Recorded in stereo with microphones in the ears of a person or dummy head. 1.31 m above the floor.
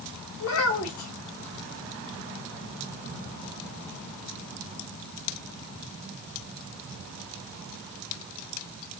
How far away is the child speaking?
About 1.7 m.